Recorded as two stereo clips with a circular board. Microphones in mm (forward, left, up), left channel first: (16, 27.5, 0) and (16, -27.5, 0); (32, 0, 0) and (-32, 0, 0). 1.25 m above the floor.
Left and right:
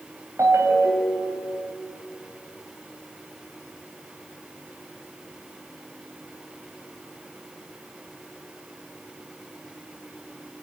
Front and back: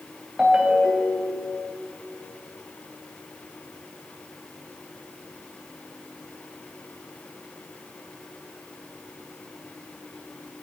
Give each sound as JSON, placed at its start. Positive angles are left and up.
{"t": 0.4, "sound": "a ringtone", "azimuth_deg": -105, "distance_m": 3.0}